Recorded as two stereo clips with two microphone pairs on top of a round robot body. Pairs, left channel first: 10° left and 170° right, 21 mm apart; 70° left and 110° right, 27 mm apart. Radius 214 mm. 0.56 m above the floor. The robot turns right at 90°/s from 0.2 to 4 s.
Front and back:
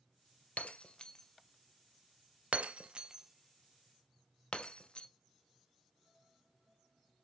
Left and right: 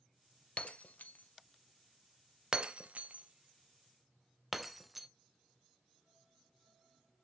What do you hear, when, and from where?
0.6 s breaking glass: 20° left, 0.5 m; by 5.1 s 30° right, 0.5 m